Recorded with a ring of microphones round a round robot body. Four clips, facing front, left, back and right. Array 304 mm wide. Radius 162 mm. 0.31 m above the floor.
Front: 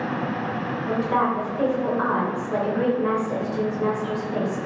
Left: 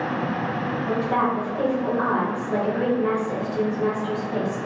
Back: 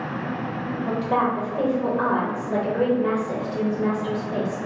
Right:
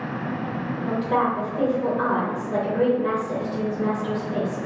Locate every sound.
0.8 s a woman speaking: 175° right, 1.4 m